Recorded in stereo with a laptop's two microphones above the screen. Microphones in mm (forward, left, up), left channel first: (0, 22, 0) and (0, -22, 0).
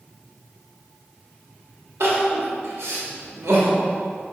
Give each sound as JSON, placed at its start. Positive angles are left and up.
{"t": 2.0, "sound": "crying", "side_deg": -85, "distance_m": 1.8}